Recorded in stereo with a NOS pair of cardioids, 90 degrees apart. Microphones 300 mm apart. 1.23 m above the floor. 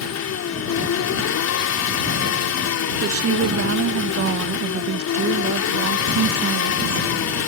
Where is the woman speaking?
50° right.